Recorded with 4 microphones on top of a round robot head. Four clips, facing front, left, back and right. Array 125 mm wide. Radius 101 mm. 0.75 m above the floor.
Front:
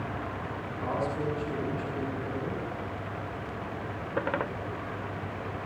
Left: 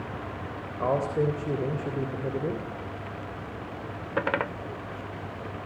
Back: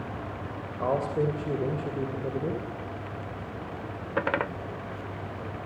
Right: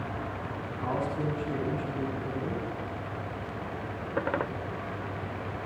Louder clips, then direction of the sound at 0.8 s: Left 6 dB, back 5 dB; 125° left.